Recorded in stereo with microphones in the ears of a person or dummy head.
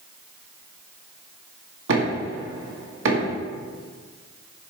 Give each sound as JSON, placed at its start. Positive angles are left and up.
{"t": 1.9, "sound": "knocking", "side_deg": -80, "distance_m": 2.0}